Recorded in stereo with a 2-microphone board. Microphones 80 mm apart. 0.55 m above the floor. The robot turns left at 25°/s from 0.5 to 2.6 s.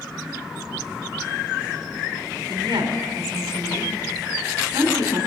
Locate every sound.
2.5 s a woman speaking: 65° right (ahead or behind), 3.5 m